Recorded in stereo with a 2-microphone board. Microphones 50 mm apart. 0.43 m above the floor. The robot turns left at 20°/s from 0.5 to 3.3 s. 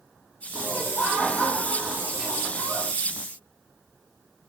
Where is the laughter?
35° left, 1.6 m; by 2.9 s 10° right, 1.6 m.